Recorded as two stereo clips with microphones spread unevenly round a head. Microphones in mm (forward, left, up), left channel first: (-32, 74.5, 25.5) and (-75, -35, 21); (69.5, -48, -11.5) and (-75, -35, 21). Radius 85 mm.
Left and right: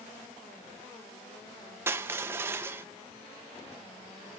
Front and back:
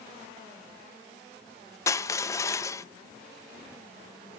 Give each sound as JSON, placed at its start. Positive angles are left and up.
{"t": 1.9, "sound": "crushing", "azimuth_deg": -50, "distance_m": 0.6}